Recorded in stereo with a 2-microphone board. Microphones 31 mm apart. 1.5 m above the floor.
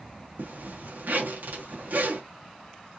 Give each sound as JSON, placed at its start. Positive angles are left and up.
{"t": 0.4, "sound": "a zipper", "side_deg": -70, "distance_m": 1.1}